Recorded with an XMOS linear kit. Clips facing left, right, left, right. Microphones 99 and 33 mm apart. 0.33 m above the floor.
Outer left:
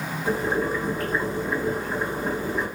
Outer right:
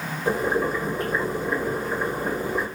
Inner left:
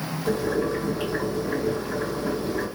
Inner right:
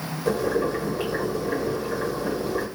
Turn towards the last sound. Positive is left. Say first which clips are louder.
# outer right 2 dB, inner right 1 dB
turn(degrees=-15)  # may be behind; listen again after turning